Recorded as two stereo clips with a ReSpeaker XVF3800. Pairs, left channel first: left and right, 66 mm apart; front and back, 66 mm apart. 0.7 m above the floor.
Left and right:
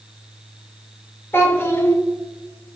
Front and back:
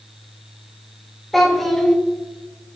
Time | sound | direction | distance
1.3 | a child speaking | 80° left | 0.7 m